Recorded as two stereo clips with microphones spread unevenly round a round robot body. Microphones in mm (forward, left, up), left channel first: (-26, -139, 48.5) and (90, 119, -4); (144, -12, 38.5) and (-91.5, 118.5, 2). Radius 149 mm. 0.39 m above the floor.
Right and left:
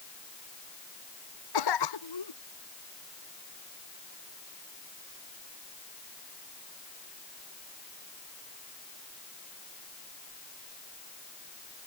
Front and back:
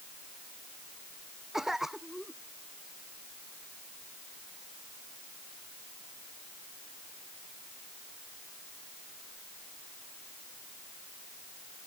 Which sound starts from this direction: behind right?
A cough, at 1.5 s.